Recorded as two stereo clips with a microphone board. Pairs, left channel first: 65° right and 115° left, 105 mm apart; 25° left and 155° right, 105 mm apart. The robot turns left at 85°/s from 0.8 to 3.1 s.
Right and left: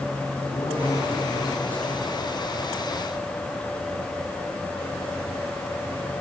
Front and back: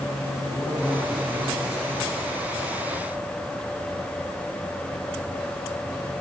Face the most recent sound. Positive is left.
turn(degrees=105)